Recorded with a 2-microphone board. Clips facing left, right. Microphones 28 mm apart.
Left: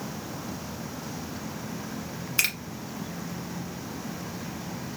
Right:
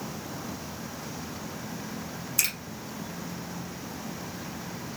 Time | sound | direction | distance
2.4 | a finger snap | 35° left (ahead or behind) | 1.2 m